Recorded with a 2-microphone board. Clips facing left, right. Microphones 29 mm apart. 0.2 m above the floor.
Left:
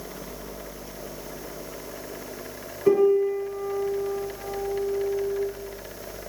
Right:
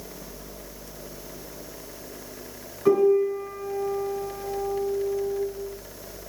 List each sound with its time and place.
2.9 s a piano: 30° right (ahead or behind), 1.9 m